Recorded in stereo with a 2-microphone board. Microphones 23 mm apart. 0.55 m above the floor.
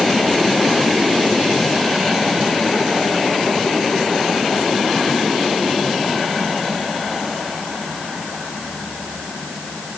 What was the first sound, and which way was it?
Only background noise.